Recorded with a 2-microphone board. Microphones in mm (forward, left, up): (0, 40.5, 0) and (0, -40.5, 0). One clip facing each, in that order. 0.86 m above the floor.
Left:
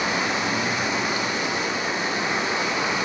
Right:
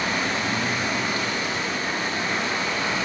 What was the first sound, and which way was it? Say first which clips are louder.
Running water: left 1 dB; 20° left (ahead or behind).